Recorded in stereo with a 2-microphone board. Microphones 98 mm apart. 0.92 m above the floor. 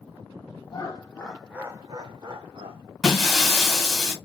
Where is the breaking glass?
Centre (ahead or behind), 1.3 m.